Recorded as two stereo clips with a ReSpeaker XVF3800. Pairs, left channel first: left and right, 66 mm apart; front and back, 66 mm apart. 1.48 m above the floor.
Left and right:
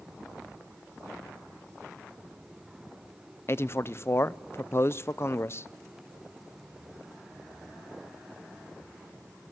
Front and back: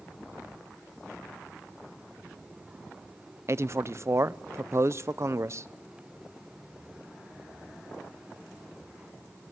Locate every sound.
3.5 s a man speaking: 135° left, 0.5 m